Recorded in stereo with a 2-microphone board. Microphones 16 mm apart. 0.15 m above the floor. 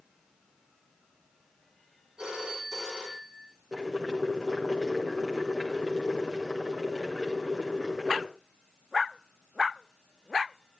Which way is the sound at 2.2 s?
55° right (ahead or behind).